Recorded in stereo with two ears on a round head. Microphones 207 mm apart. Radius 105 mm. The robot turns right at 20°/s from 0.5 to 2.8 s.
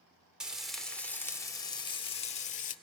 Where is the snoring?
No snoring in this recording.